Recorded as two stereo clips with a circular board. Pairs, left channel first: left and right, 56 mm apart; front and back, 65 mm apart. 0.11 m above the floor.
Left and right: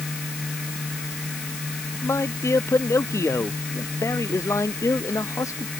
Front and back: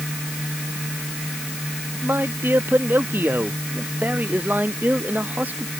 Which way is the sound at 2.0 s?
125° left.